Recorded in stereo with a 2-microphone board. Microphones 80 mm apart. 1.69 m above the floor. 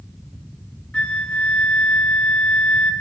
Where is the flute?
10° left (ahead or behind), 0.6 m.